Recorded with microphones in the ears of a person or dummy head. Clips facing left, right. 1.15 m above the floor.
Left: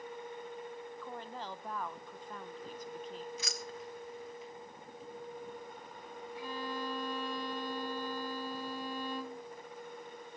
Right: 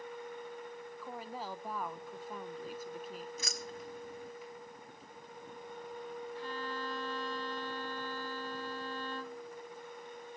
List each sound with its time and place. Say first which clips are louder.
1.0 s a woman speaking: right 4 dB; centre (ahead or behind), 0.6 m
3.4 s keys jangling: even; 35° right (ahead or behind), 1.0 m
6.3 s a violin: left 4 dB; 20° left (ahead or behind), 0.9 m